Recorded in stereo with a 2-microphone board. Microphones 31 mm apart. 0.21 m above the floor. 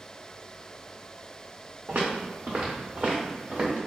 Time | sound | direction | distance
1.9 | footsteps | 65° right (ahead or behind) | 1.6 m